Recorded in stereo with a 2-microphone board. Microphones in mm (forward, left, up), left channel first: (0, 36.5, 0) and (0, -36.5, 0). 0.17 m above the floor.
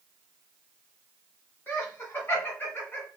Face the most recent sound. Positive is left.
turn(degrees=30)  # may be behind; listen again after turning